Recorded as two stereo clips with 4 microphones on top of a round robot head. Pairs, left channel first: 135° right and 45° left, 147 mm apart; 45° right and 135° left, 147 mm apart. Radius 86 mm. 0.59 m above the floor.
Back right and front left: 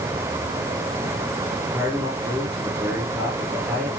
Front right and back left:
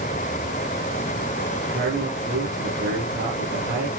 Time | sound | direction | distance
1.7 | a man speaking | 125° left | 10 m